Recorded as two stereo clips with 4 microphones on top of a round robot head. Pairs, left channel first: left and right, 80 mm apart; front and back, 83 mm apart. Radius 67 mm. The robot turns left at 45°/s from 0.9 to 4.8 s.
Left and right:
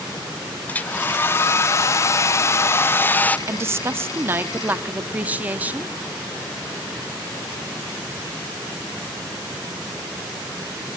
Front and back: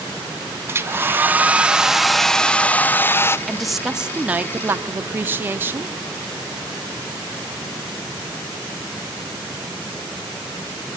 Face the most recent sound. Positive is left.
turn(degrees=-140)